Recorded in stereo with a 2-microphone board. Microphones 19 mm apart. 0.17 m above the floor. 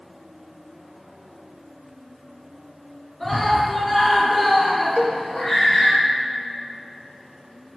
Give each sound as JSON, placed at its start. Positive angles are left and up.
{"t": 3.2, "sound": "a scream", "side_deg": -5, "distance_m": 2.5}
{"t": 5.0, "sound": "a cowbell", "side_deg": 50, "distance_m": 1.1}